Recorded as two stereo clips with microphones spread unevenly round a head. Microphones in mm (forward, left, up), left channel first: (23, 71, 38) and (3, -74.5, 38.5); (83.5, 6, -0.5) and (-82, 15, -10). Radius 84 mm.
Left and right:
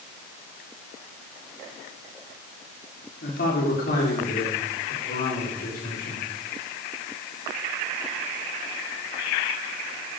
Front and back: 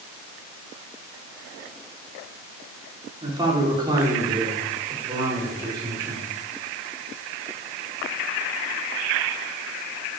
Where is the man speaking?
110° left, 4 m.